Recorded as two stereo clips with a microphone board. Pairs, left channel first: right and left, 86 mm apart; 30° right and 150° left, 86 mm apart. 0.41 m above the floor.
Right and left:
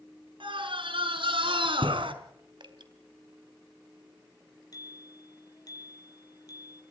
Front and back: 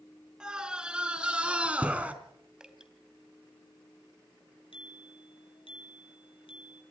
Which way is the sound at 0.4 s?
70° left.